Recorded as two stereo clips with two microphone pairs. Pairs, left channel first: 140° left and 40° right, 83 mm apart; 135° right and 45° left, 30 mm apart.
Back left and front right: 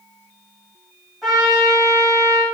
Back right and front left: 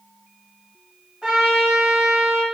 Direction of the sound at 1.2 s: 50° left.